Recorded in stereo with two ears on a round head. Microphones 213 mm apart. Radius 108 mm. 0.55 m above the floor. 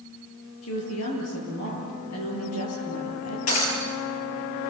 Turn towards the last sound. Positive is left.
turn(degrees=75)  # may be behind; listen again after turning